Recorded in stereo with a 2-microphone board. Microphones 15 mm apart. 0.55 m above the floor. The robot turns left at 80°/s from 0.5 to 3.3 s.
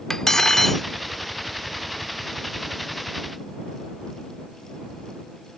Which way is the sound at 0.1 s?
35° left (ahead or behind).